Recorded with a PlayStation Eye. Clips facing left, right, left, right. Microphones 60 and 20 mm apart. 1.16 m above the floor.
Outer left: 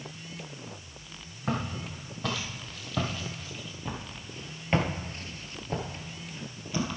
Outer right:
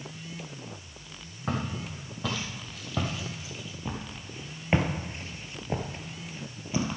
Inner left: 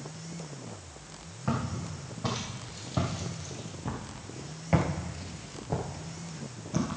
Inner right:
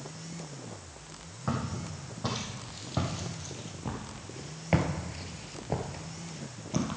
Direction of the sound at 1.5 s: 5° right (ahead or behind).